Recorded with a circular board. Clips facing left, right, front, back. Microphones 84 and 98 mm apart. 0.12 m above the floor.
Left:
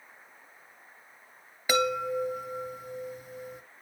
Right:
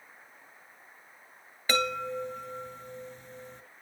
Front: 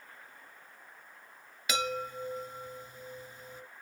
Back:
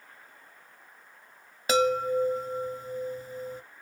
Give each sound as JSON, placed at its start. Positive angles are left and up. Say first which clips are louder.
{"t": 1.7, "sound": "a chime", "louder": "left 3 dB, back 11 dB", "azimuth_deg": 165, "distance_m": 1.4}